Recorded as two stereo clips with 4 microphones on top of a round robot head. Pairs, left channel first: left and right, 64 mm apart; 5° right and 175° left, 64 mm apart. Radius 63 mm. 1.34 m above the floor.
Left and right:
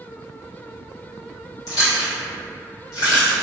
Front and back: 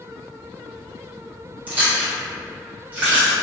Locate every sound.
1.7 s chewing: 110° left, 1.8 m